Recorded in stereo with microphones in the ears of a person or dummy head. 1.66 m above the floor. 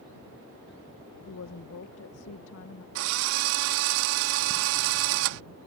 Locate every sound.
1.3 s a woman speaking: 75° left (ahead or behind)
3.0 s a drill: 70° right (ahead or behind)